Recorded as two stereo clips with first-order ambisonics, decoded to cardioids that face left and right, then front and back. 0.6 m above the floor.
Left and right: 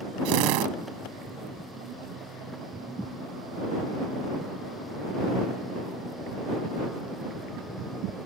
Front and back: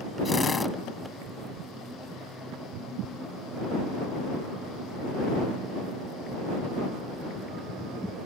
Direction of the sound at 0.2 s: 75° right.